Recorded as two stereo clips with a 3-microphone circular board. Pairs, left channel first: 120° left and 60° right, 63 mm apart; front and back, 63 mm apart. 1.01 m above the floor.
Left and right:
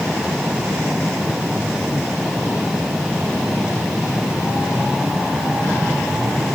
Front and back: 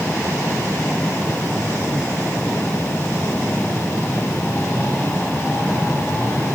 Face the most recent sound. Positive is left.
No sound to turn to.